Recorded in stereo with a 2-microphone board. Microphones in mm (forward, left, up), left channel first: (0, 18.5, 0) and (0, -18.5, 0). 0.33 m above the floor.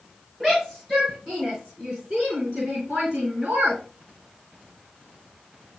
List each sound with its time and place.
0.4 s a shout: 10° right (ahead or behind), 4.5 m; by 3.8 s 50° right (ahead or behind), 3 m